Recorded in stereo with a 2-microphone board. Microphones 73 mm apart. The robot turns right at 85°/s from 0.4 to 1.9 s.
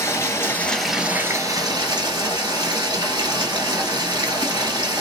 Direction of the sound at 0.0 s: 145° left.